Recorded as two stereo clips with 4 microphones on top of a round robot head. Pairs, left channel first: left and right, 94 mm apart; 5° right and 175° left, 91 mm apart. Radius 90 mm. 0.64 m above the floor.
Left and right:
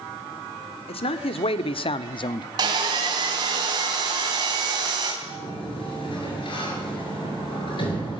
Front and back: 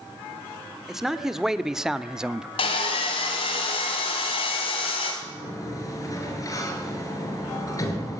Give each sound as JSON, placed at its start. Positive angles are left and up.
{"t": 0.9, "sound": "a man speaking", "azimuth_deg": 90, "distance_m": 1.8}
{"t": 2.6, "sound": "sawing", "azimuth_deg": -40, "distance_m": 4.0}
{"t": 5.2, "sound": "a sliding door", "azimuth_deg": 45, "distance_m": 5.5}